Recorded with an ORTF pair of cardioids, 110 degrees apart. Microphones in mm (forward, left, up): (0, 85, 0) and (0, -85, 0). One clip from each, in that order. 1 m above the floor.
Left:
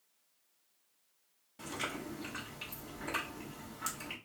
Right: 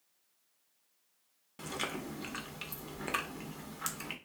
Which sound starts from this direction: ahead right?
Chewing, at 1.6 s.